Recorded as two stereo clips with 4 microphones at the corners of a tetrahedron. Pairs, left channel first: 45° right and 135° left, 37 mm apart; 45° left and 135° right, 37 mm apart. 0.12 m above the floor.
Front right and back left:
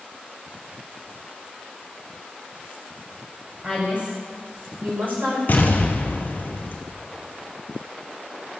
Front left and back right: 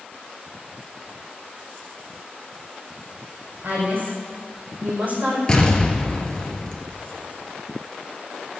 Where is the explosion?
25° right, 1.8 m.